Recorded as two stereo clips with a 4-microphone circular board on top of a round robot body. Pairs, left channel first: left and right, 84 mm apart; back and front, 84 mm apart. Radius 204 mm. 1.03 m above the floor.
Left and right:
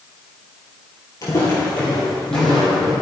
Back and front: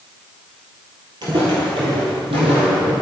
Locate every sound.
1.2 s footsteps: 40° left, 1.5 m; by 2.9 s straight ahead, 3 m